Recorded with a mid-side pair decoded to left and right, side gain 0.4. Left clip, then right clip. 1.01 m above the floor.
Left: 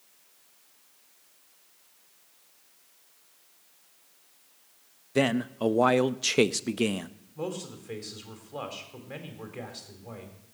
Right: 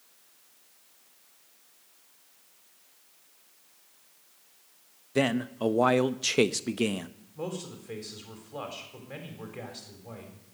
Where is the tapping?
I don't hear tapping.